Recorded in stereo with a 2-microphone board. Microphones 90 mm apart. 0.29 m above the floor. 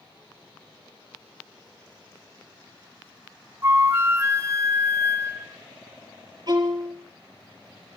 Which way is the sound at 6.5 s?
45° right (ahead or behind).